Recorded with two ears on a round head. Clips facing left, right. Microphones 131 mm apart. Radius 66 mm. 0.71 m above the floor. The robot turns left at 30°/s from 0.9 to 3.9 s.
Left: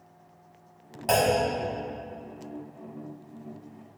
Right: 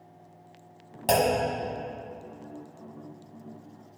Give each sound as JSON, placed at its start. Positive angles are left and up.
{"t": 1.1, "sound": "a clunk", "side_deg": -30, "distance_m": 1.2}